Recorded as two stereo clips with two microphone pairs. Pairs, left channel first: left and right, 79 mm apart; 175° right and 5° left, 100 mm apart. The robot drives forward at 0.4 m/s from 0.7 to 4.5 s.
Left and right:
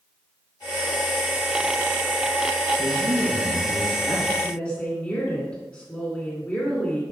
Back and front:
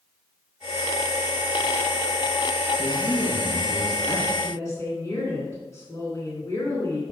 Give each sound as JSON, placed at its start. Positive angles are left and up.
{"t": 2.8, "sound": "a man speaking", "azimuth_deg": -105, "distance_m": 3.0}
{"t": 4.4, "sound": "a woman speaking", "azimuth_deg": 155, "distance_m": 1.9}